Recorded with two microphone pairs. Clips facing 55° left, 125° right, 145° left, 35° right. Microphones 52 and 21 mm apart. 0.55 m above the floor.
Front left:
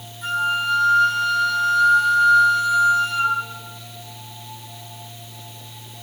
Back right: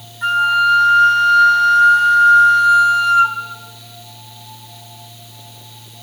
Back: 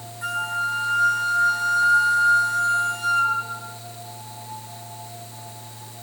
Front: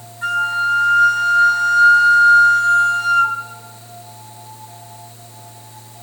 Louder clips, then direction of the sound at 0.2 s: Back right 8 dB, front 7 dB; 110° right.